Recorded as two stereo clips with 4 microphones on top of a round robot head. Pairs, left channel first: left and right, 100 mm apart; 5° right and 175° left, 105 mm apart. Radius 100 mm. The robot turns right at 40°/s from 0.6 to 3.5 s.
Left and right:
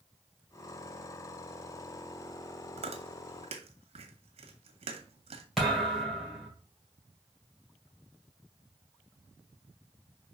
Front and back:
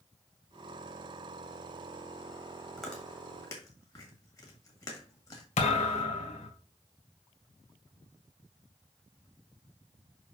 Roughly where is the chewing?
Right.